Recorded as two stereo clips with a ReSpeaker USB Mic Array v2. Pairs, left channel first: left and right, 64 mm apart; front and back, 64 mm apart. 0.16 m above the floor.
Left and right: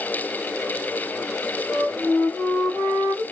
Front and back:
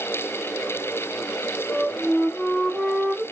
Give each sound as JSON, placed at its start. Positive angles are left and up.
{"t": 1.7, "sound": "a flute", "azimuth_deg": 70, "distance_m": 3.0}